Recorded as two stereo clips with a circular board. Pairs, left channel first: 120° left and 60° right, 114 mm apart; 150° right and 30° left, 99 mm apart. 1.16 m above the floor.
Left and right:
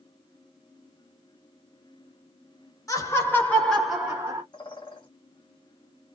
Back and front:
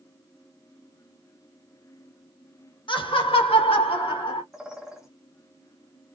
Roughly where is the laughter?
Behind.